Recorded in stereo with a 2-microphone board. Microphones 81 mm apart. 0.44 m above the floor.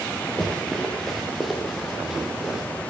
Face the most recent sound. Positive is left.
turn(degrees=-10)  # may be behind; listen again after turning